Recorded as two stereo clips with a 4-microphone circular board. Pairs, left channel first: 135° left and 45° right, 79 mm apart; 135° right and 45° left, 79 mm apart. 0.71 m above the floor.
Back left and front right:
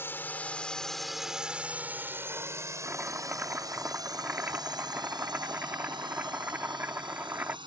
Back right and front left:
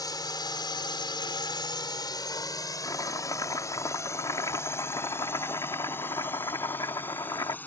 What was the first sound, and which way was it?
A drone, 165° right.